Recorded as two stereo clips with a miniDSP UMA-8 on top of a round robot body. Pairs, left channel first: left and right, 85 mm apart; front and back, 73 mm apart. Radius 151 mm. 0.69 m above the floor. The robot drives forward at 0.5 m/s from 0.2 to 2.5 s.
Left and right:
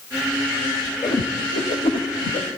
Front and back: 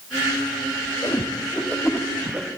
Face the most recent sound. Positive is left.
turn(degrees=110)